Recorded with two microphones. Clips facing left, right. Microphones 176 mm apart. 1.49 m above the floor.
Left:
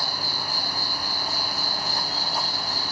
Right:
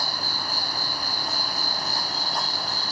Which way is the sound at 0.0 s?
45° right (ahead or behind).